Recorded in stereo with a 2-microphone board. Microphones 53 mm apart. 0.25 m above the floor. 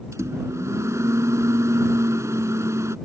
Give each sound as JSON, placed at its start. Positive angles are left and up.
{"t": 0.1, "sound": "a microwave", "side_deg": -70}